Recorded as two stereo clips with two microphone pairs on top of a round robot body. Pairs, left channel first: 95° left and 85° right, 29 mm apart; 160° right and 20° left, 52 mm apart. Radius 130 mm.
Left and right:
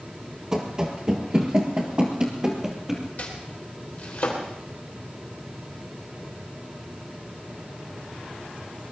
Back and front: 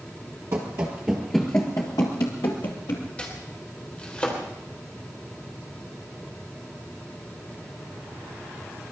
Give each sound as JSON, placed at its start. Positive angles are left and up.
{"t": 0.5, "sound": "running footsteps", "azimuth_deg": -15, "distance_m": 1.8}
{"t": 3.2, "sound": "chopping", "azimuth_deg": 135, "distance_m": 3.0}